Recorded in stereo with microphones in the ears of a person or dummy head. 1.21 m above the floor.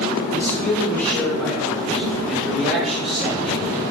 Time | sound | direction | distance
0.3 | a man speaking | 20° left (ahead or behind) | 2.5 m